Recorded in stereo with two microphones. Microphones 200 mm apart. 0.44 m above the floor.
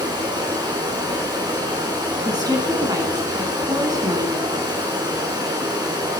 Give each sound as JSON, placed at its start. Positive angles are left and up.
{"t": 0.0, "sound": "running water", "side_deg": -20, "distance_m": 4.5}
{"t": 2.2, "sound": "a woman speaking", "side_deg": -20, "distance_m": 4.0}